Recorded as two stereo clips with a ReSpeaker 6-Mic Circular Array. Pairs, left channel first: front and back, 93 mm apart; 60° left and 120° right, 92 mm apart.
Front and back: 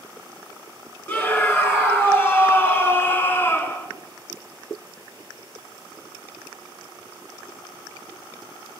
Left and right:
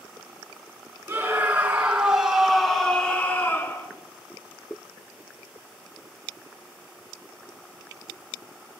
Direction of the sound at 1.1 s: 60° right.